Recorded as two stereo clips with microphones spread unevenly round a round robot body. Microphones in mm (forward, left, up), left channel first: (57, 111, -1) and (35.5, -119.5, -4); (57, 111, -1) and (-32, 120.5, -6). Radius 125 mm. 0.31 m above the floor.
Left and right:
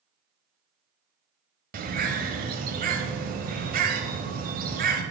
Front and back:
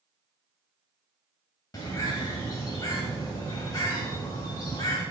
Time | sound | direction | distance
1.7 | a bird | 60° right | 1.2 m